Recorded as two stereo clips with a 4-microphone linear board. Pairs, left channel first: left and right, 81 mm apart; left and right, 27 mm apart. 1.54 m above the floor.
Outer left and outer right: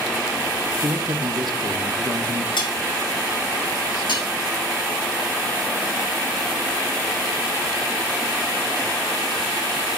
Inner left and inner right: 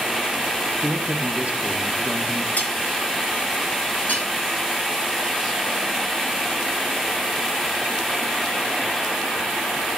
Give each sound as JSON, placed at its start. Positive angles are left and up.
{"t": 0.8, "sound": "a man speaking", "side_deg": -60, "distance_m": 1.5}
{"t": 2.6, "sound": "cutlery clinking", "side_deg": 70, "distance_m": 2.5}
{"t": 4.1, "sound": "cutlery clinking", "side_deg": 75, "distance_m": 5.5}